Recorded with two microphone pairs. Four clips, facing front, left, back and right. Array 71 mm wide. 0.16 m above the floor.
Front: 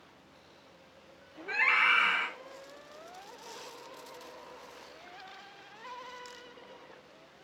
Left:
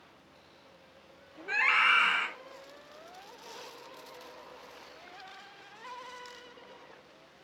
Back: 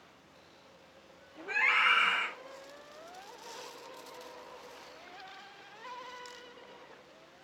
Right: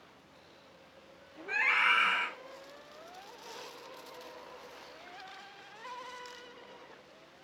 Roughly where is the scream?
Left.